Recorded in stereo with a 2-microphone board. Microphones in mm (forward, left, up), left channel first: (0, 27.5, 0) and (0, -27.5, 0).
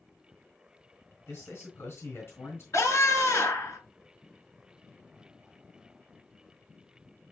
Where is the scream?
65° left (ahead or behind), 3 m.